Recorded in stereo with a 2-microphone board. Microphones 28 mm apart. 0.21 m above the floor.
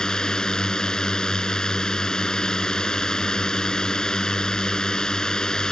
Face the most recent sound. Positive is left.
turn(degrees=30)  # may be behind; listen again after turning